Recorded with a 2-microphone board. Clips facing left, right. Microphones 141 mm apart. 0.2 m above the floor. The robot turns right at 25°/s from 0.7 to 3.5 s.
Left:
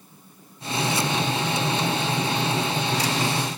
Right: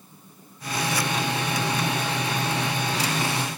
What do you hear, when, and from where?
Only background noise.